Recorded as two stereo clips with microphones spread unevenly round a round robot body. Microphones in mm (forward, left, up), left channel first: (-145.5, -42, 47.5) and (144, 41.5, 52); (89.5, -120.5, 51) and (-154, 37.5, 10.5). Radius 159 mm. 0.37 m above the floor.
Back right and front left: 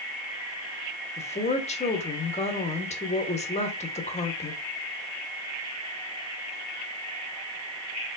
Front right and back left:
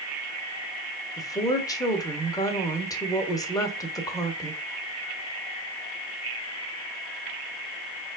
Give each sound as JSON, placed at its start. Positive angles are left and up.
{"t": 1.2, "sound": "a woman speaking", "azimuth_deg": -115, "distance_m": 1.0}